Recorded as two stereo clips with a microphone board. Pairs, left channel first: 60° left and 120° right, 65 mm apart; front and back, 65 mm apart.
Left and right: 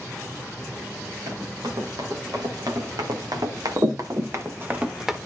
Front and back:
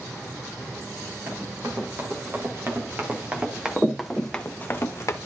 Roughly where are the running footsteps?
Behind right.